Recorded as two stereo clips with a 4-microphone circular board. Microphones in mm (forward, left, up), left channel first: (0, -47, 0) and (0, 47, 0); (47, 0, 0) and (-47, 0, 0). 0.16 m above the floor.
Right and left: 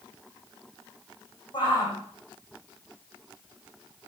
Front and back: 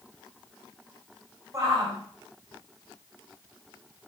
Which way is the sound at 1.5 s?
125° right.